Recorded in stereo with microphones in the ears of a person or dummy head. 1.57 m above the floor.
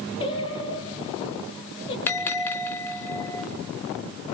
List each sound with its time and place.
0.2 s singing: 25° left (ahead or behind), 6 m
2.1 s a bell: 10° left (ahead or behind), 3 m